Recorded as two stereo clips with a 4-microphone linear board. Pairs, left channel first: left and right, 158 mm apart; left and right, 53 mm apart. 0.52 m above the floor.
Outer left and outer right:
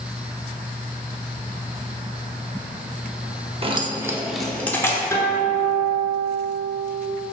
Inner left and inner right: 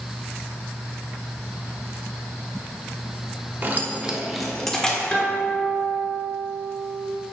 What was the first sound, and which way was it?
Keys jangling, 35° right (ahead or behind).